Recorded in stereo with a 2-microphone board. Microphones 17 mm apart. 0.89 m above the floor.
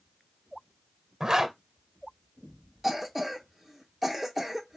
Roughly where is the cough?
Centre.